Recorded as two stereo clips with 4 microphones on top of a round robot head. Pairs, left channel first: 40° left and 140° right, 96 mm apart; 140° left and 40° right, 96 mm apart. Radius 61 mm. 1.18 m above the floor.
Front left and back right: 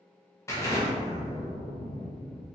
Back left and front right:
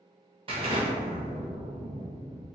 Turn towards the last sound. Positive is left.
turn(degrees=-15)